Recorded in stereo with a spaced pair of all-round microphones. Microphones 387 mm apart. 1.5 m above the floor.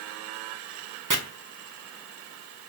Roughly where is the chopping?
Right.